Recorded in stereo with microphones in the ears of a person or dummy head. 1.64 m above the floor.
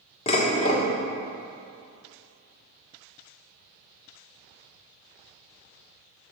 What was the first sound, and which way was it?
Dishes clattering, 40° left (ahead or behind).